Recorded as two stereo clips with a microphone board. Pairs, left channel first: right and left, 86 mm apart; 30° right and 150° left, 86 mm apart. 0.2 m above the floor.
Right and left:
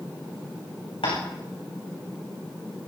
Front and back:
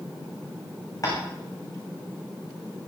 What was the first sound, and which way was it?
Tapping, 80° right.